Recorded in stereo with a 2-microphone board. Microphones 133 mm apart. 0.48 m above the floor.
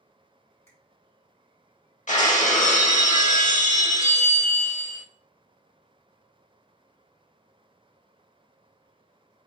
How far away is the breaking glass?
About 0.6 m.